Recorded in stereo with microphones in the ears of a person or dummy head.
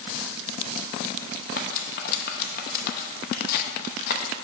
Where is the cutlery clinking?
50° left (ahead or behind), 0.8 m.